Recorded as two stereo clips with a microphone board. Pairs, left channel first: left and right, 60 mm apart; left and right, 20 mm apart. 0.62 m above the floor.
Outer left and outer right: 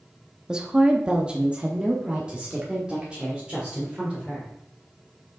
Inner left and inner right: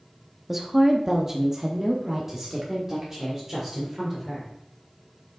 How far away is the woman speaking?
About 0.9 m.